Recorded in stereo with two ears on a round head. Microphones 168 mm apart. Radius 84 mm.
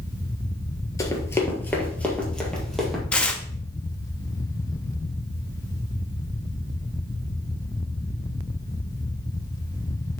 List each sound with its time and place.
1.0 s running footsteps: 20° left (ahead or behind), 1.4 m; by 3.0 s centre (ahead or behind), 2 m
3.1 s tearing paper: 5° left (ahead or behind), 0.7 m